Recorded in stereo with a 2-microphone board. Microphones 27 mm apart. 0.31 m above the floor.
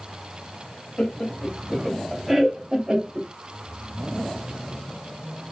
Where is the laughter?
35° left (ahead or behind), 1.2 m; by 3.3 s 30° right (ahead or behind), 1.0 m.